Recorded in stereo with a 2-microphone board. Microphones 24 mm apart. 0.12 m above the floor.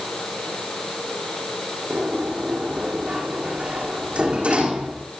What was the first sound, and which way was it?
A sliding door, 50° right (ahead or behind).